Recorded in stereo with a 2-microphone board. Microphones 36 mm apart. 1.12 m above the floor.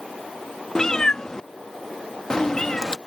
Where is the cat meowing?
20° left (ahead or behind).